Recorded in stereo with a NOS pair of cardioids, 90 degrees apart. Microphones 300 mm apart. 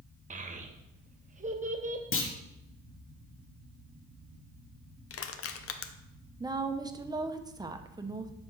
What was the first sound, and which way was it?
A child speaking, 25° right.